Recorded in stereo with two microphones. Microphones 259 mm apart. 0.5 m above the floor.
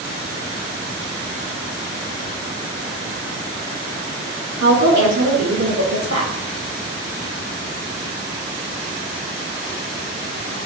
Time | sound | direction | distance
4.6 | a woman speaking | 80° right | 6 m